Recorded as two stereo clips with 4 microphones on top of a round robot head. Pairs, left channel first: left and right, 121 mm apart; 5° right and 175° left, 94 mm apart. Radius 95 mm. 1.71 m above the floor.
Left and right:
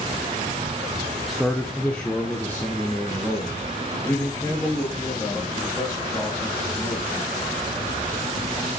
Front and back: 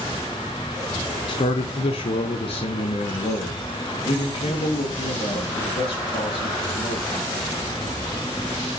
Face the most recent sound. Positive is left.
turn(degrees=15)